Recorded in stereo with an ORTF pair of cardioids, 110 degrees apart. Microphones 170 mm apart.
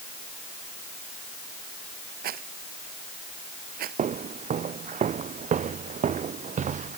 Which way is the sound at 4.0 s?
45° right.